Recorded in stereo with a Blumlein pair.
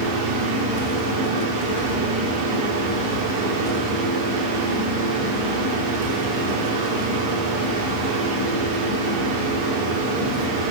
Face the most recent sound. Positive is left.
turn(degrees=-40)